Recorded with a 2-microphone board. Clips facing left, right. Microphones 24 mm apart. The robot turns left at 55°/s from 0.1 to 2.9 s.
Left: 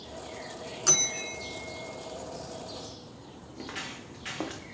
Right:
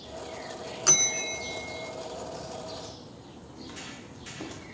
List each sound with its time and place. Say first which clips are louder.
0.9 s a bell: right 2 dB; 15° right, 0.9 m; by 1.9 s 75° right, 0.9 m
3.5 s footsteps: left 4 dB; 70° left (ahead or behind), 5.5 m; by 4.6 s 80° left, 4.5 m